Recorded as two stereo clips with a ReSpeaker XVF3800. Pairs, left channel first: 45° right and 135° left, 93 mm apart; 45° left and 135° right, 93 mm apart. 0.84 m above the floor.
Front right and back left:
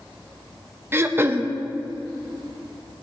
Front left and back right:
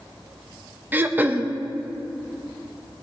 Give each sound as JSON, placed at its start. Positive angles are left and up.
{"t": 0.9, "sound": "throat clearing", "azimuth_deg": 175, "distance_m": 0.6}